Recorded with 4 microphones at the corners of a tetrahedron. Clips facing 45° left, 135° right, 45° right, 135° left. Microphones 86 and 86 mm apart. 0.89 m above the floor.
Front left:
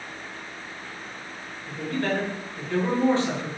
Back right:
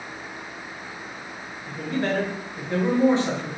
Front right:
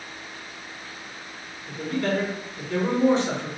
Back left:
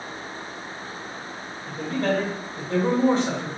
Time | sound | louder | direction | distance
1.7 | a man speaking | back right 1 dB, back left 1 dB | 160° left | 1.5 m